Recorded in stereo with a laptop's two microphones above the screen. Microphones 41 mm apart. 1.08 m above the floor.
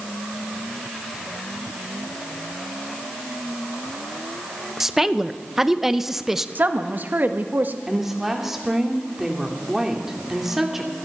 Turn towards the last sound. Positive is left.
turn(degrees=-10)  # may be behind; listen again after turning